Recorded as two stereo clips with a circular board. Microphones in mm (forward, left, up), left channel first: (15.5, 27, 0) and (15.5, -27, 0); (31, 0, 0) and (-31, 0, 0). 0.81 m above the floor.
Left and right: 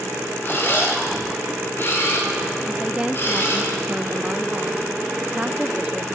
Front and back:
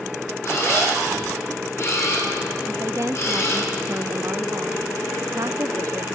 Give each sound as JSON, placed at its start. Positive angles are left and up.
{"t": 0.4, "sound": "a camera shutter", "azimuth_deg": 45, "distance_m": 9.0}
{"t": 2.7, "sound": "a woman speaking", "azimuth_deg": -155, "distance_m": 0.7}